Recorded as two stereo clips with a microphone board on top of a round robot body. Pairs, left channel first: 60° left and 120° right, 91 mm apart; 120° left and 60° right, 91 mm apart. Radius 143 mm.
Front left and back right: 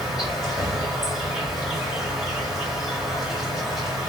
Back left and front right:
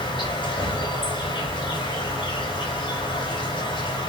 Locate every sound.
0.0 s an insect: 155° left, 5 m